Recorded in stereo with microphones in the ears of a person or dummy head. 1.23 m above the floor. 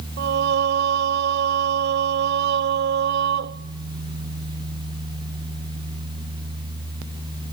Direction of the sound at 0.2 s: 60° right (ahead or behind).